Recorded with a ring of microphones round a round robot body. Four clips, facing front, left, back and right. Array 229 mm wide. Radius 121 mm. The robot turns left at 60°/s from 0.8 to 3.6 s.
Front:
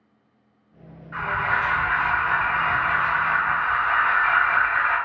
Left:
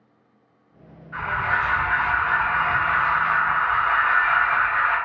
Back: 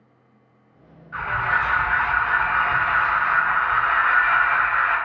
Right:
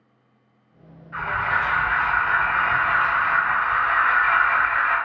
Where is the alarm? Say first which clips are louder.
Even, back 1 dB; straight ahead, 1.3 m; by 5.0 s 150° right, 1.3 m.